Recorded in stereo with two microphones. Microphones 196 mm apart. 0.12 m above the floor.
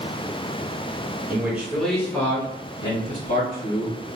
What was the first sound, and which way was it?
A man speaking, 15° right (ahead or behind).